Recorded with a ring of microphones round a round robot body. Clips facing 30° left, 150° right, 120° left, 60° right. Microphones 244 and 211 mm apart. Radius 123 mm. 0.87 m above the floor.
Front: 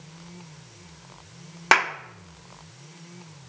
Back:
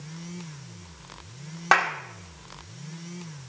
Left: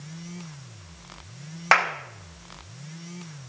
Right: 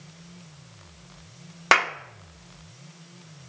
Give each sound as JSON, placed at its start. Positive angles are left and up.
{"t": 1.7, "sound": "a clap", "azimuth_deg": -15, "distance_m": 1.0}